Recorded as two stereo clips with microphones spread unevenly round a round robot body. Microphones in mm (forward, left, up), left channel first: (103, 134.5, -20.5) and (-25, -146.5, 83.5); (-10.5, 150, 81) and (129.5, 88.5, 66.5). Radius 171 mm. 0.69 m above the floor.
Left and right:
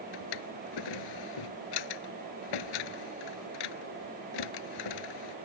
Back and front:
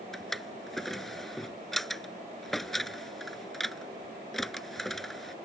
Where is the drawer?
70° left.